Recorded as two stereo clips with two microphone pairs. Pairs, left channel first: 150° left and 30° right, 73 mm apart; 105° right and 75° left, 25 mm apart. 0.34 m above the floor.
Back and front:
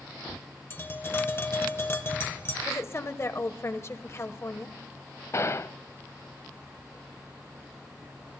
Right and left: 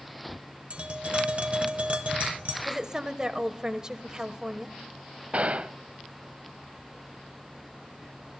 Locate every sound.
0.7 s tapping: 95° left, 1.7 m
2.6 s a woman speaking: 125° left, 1.3 m
5.3 s a gunshot: 100° left, 0.6 m